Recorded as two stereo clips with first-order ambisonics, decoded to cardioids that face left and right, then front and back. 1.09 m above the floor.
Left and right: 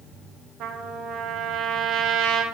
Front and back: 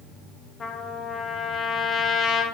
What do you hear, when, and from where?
0.6 s a trumpet: 65° right, 0.9 m